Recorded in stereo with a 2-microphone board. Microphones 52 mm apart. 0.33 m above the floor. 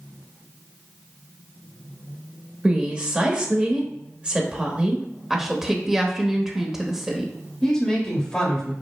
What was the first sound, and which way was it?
A woman speaking, 20° right (ahead or behind).